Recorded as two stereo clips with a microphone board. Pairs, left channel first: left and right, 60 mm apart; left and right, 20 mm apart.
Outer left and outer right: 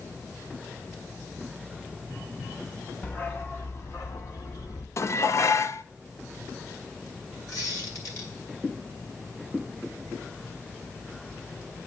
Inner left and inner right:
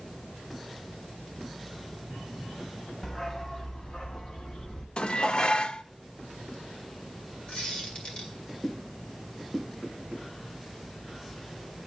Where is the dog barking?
30° left (ahead or behind), 1.7 m; by 4.9 s 70° left (ahead or behind), 2.5 m.